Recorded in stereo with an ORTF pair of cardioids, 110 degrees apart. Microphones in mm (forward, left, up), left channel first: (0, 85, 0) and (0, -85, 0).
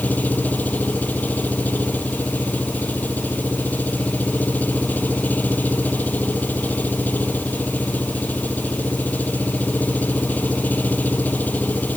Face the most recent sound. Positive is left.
turn(degrees=10)